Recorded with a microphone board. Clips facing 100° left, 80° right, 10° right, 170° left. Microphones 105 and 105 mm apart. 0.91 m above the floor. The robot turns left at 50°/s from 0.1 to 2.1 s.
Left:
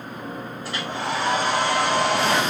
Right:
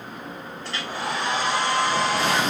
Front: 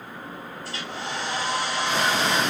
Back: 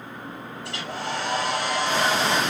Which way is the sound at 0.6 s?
175° right.